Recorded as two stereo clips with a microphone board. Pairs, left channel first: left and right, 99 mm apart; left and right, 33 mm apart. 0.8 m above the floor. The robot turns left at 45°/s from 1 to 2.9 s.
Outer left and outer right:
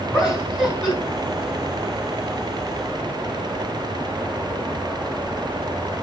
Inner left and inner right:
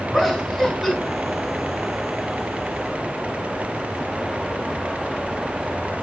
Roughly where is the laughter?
Centre.